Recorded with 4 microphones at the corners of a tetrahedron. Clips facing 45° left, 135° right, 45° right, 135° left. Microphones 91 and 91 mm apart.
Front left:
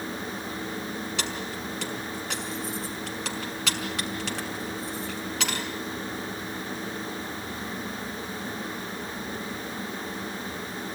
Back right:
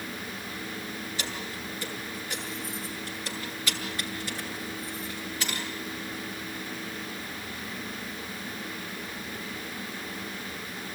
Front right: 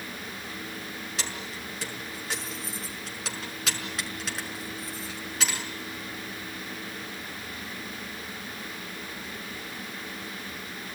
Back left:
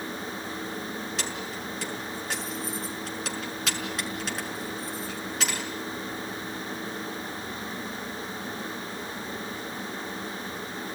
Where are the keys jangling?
45° left, 5.5 m.